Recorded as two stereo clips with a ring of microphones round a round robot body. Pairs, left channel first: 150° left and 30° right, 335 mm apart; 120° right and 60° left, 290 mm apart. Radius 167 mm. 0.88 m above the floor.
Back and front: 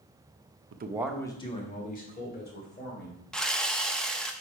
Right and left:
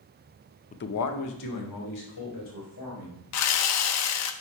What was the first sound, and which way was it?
A man speaking, 65° right.